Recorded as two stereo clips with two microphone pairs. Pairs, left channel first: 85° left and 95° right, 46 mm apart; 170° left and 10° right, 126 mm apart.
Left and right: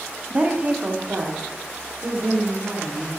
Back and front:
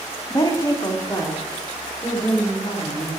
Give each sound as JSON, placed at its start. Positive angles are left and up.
{"t": 0.3, "sound": "a woman speaking", "azimuth_deg": -150, "distance_m": 1.3}